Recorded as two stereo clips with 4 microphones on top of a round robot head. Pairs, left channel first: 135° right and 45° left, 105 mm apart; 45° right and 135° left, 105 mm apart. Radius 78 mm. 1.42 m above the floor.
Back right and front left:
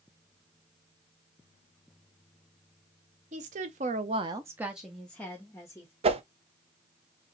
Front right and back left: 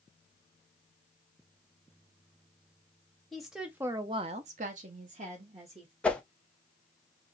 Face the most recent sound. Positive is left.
turn(degrees=30)